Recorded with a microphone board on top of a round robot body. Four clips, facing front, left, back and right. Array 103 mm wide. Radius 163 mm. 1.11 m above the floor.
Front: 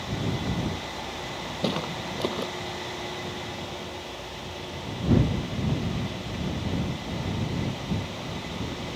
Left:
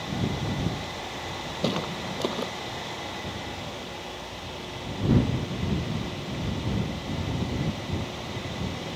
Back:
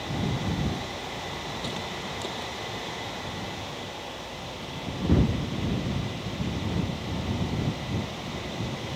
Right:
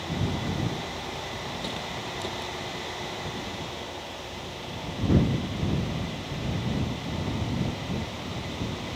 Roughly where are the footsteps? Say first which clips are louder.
Left 5 dB, front 5 dB; ahead left.